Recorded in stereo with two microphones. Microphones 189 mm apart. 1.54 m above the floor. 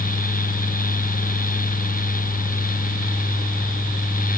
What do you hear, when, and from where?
Only background noise.